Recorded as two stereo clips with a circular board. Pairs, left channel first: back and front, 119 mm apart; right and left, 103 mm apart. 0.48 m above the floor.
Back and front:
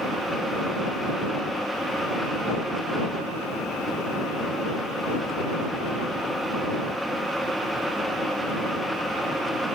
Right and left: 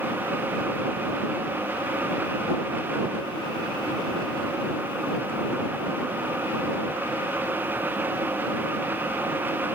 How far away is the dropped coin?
I don't hear a dropped coin.